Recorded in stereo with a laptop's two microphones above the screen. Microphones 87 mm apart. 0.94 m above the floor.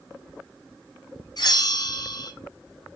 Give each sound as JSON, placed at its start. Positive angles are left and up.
{"t": 1.4, "sound": "a bell", "side_deg": 55, "distance_m": 2.5}